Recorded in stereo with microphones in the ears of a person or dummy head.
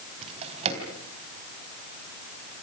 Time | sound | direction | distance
0.2 | a drawer | 35° right (ahead or behind) | 4 m